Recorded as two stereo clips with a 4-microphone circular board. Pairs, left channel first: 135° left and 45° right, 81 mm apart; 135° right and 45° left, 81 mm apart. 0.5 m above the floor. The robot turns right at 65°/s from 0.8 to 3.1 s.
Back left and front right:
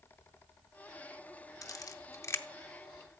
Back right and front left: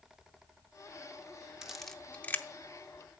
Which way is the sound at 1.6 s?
125° left.